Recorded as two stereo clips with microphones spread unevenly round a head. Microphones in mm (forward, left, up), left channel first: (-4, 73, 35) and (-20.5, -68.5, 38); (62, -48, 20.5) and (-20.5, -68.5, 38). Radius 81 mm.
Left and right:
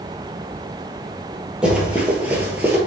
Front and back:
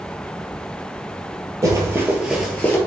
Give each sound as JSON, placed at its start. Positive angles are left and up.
{"t": 1.6, "sound": "running footsteps", "azimuth_deg": 180, "distance_m": 1.7}